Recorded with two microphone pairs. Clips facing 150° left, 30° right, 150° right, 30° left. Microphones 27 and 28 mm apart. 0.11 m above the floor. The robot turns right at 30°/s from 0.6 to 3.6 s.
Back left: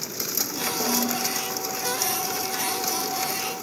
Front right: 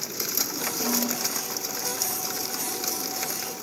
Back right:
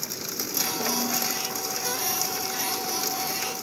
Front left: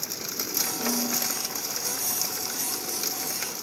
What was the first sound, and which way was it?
A snare drum, 130° left.